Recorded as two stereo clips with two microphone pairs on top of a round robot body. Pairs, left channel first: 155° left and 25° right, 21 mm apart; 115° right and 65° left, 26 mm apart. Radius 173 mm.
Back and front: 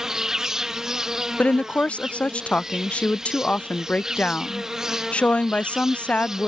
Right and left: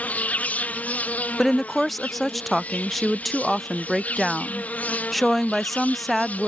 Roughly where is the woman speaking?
Behind left.